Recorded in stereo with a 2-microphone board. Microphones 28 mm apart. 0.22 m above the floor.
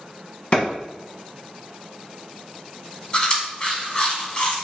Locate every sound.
0.5 s a clap: 45° left (ahead or behind), 1.4 m
3.1 s chewing: 35° left (ahead or behind), 1.0 m